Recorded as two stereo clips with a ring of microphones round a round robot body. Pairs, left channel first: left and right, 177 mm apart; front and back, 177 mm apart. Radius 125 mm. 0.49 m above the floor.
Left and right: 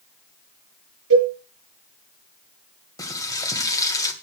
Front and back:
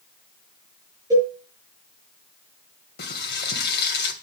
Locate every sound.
1.1 s a cowbell: 100° right, 6.5 m
3.0 s frying: 20° left, 2.5 m